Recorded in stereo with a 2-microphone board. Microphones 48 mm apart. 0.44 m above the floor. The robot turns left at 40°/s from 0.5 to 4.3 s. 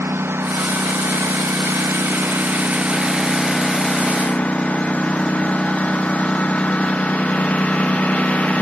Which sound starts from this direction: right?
A lawn mower, at 0.0 s.